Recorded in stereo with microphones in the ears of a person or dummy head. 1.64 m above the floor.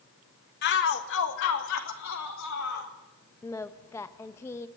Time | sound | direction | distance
0.6 | a shout | 55° left (ahead or behind) | 1.7 m
3.4 | singing | 15° left (ahead or behind) | 0.9 m